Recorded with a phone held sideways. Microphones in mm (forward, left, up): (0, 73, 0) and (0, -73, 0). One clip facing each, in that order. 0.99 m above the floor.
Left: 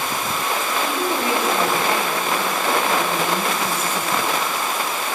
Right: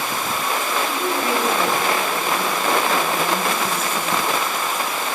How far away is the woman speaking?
About 2.5 m.